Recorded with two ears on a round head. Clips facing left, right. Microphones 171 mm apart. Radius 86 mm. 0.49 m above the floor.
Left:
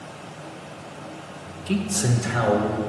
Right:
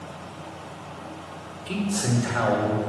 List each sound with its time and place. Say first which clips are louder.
1.7 s a man speaking: left 1 dB; 20° left (ahead or behind), 1.0 m; by 2.8 s 50° left (ahead or behind), 1.6 m